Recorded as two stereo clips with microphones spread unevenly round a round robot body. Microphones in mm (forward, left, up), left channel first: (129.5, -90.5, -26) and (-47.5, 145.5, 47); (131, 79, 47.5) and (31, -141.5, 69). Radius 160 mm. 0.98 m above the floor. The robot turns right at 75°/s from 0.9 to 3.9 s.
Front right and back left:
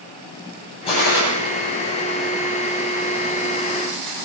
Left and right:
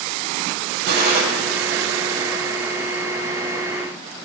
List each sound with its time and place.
0.9 s a gunshot: 130° right, 7.5 m; by 1.2 s 105° right, 7.5 m